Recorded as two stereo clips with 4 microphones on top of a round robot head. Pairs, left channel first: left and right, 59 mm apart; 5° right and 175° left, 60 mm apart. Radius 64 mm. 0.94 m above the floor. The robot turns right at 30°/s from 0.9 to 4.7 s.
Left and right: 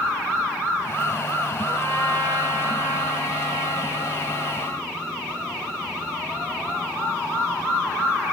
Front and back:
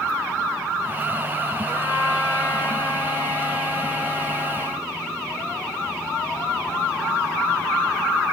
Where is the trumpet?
55° right, 2 m; by 4.9 s 35° left, 2 m.